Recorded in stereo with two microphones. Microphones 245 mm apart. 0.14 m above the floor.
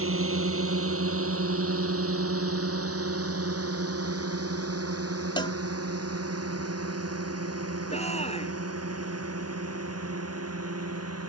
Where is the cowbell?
20° left (ahead or behind).